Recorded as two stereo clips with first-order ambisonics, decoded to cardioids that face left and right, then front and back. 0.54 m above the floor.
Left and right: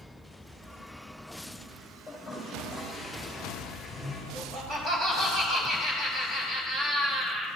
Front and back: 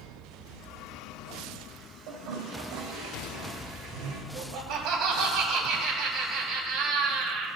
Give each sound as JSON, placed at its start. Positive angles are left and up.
{"t": 2.1, "sound": "a toilet flushing", "azimuth_deg": -175, "distance_m": 2.5}
{"t": 4.3, "sound": "laughter", "azimuth_deg": -150, "distance_m": 3.0}